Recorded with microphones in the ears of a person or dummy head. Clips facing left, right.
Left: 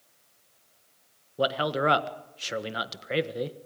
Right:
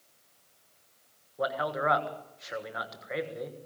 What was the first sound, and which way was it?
A man speaking, 40° left (ahead or behind).